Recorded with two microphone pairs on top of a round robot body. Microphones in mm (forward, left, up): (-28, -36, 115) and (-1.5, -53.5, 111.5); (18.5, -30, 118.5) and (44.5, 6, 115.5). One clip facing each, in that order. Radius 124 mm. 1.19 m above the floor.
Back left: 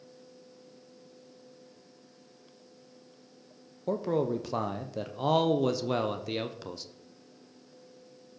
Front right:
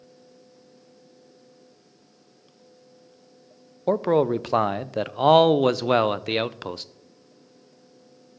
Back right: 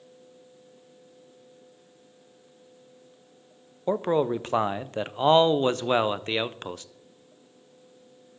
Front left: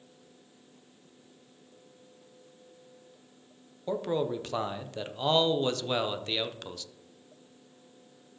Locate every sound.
3.9 s a man speaking: 70° right, 0.6 m